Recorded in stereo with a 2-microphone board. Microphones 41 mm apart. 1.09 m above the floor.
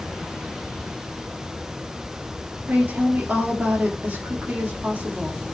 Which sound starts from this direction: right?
A woman speaking, at 2.7 s.